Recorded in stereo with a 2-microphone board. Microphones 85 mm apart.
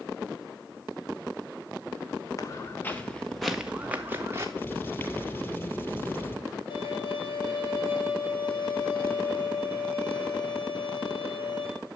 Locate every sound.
2.4 s footsteps: 40° left (ahead or behind), 1.5 m; by 4.5 s 35° right (ahead or behind), 1.7 m
4.6 s writing: 25° left (ahead or behind), 3 m
6.7 s a violin: 65° left (ahead or behind), 6.5 m